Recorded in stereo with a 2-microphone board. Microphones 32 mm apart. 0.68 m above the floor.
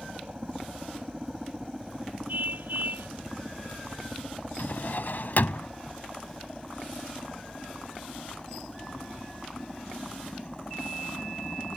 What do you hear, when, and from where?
0.0 s a helicopter: 25° right (ahead or behind); by 11.8 s 25° left (ahead or behind)
2.3 s a car horn: 65° right (ahead or behind)
4.6 s a drawer: 60° left (ahead or behind)